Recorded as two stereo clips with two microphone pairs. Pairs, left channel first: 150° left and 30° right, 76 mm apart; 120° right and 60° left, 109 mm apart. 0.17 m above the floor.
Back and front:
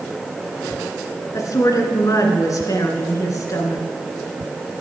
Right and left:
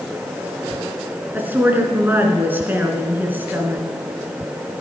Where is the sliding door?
I don't hear a sliding door.